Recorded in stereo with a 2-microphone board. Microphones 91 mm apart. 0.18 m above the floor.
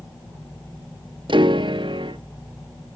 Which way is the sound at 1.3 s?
65° right (ahead or behind).